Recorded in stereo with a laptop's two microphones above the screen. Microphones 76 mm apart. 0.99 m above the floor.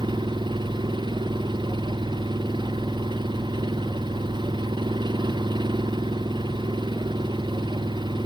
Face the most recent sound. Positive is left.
turn(degrees=-90)